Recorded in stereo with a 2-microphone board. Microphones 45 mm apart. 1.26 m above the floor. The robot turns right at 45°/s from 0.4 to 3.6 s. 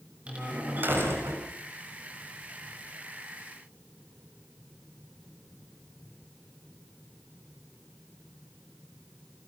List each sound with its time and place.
0.3 s a door slam: 155° right, 6.5 m; by 1.4 s 110° right, 6.5 m